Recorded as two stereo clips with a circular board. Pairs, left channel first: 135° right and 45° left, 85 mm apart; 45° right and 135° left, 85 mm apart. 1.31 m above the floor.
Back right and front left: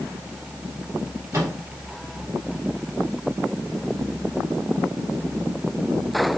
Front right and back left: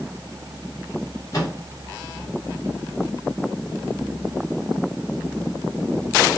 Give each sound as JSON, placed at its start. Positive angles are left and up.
{"t": 1.3, "sound": "a microwave", "azimuth_deg": -5, "distance_m": 1.5}